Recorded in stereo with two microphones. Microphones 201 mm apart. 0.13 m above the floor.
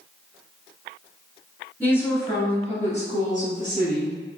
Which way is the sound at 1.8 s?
5° left (ahead or behind).